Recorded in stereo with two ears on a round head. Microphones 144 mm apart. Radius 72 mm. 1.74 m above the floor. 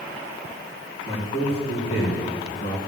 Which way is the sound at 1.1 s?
40° left (ahead or behind).